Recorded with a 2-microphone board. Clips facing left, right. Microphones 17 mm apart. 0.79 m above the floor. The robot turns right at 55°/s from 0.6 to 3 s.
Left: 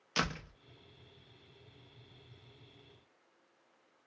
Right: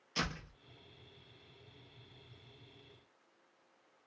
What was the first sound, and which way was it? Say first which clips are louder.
A door slam: left 3 dB; 40° left (ahead or behind).